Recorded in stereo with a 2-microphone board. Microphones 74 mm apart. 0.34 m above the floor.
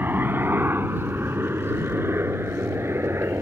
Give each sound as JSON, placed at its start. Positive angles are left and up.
{"t": 0.0, "sound": "a helicopter", "side_deg": -25}